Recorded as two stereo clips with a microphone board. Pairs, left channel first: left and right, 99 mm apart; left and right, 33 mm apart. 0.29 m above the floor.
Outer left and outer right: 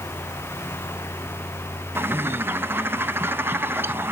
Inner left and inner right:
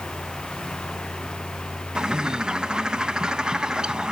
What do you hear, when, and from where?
1.9 s a bird: 20° right (ahead or behind), 0.6 m